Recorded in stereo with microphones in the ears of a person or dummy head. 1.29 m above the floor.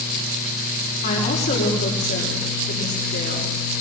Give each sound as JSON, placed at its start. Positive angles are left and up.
{"t": 1.0, "sound": "a woman speaking", "side_deg": 55, "distance_m": 4.5}